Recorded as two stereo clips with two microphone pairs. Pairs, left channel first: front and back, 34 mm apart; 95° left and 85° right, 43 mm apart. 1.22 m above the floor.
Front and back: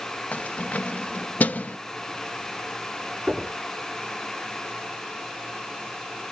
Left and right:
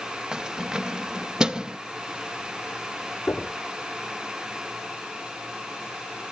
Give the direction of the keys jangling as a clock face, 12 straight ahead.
1 o'clock.